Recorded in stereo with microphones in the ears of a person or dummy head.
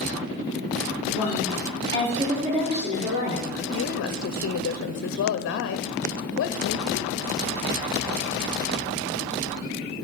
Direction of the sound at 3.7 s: 60° left (ahead or behind).